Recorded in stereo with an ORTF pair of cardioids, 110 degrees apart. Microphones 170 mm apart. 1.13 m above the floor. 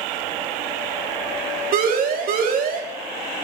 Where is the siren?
60° right, 3 m.